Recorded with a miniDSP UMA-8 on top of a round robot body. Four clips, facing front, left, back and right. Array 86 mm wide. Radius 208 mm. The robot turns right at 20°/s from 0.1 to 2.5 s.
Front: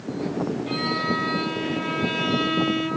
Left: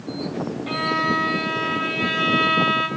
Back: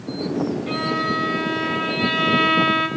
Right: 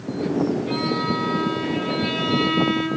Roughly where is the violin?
Left.